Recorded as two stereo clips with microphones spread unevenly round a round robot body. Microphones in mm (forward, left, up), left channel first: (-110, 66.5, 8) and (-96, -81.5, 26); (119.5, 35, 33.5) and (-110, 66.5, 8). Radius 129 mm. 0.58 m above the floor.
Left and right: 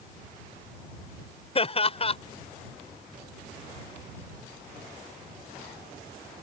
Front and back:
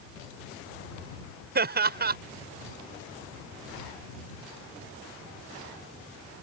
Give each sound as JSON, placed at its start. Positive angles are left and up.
{"t": 1.6, "sound": "laughter", "azimuth_deg": 135}